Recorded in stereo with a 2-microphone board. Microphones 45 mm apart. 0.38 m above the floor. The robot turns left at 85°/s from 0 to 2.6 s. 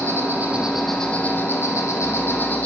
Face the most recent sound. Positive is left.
turn(degrees=30)